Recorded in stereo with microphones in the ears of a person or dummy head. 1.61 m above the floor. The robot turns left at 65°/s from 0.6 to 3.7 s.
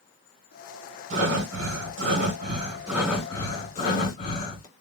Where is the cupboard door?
No cupboard door in this recording.